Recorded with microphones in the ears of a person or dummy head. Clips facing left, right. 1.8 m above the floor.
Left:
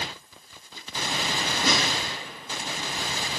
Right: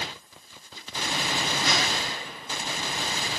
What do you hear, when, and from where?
1.6 s a snare drum: 85° left, 5 m